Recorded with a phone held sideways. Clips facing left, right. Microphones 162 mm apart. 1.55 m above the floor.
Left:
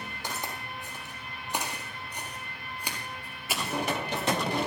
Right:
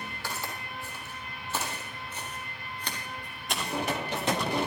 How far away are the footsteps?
About 3 m.